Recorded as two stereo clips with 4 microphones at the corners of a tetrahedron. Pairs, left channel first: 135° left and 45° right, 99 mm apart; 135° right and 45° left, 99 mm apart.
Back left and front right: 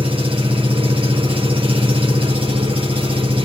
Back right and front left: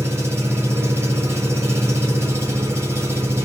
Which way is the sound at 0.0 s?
20° right.